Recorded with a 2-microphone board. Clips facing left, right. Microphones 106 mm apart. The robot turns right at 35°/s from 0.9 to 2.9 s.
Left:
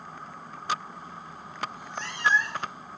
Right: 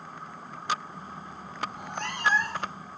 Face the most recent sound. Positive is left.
turn(degrees=-35)